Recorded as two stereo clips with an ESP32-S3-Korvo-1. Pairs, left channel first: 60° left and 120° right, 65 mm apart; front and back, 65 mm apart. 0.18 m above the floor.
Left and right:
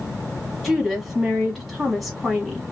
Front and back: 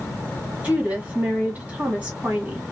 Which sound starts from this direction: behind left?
A woman speaking, at 0.6 s.